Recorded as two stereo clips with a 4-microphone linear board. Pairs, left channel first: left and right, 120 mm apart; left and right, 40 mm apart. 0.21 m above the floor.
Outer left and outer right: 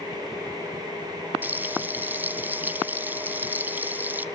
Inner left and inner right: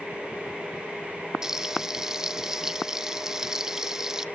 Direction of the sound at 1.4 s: 15° right (ahead or behind).